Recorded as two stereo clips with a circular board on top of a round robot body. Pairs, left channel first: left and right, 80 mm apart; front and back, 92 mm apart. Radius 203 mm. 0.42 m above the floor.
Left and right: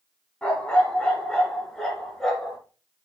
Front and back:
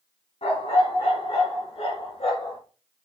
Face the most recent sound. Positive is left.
turn(degrees=0)